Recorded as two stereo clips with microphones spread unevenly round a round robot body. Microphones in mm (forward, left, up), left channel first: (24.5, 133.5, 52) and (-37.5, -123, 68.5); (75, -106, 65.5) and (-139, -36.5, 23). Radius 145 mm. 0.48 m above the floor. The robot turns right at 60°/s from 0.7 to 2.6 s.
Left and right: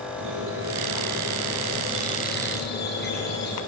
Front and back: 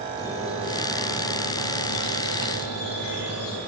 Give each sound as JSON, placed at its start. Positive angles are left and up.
{"t": 0.2, "sound": "a squeak", "azimuth_deg": -90, "distance_m": 6.5}